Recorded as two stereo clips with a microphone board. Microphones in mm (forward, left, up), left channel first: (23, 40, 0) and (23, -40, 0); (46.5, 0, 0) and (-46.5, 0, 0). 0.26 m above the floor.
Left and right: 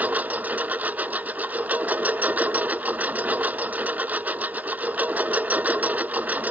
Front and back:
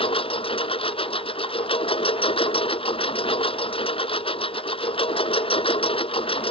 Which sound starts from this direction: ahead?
A lawn mower, at 0.0 s.